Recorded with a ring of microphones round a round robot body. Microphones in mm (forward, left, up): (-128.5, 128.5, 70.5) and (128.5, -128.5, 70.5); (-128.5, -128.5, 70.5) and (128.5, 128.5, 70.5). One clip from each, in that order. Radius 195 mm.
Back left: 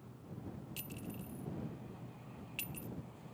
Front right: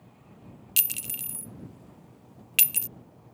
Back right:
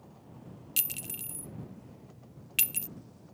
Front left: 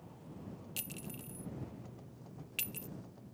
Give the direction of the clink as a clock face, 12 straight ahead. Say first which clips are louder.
Front right 19 dB, back right 10 dB; 2 o'clock.